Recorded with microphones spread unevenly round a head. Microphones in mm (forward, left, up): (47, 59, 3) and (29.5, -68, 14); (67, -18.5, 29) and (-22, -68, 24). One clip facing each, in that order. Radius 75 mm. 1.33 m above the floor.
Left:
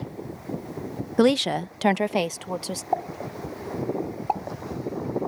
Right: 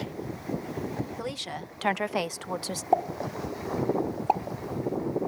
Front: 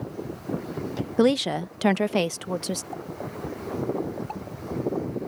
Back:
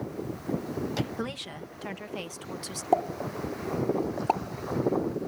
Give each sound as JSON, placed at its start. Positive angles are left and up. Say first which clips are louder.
{"t": 1.2, "sound": "a woman speaking", "louder": "left 15 dB, front 15 dB", "azimuth_deg": 80}
{"t": 2.9, "sound": "a pop", "louder": "right 3 dB, back 8 dB", "azimuth_deg": -170}